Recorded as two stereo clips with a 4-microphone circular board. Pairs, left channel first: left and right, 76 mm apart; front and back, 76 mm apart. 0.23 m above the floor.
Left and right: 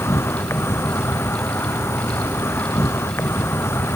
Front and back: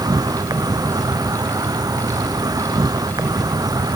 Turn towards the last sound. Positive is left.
turn(degrees=145)